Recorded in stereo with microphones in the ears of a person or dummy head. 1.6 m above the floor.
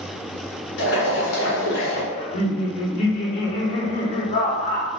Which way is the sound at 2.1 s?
40° left (ahead or behind).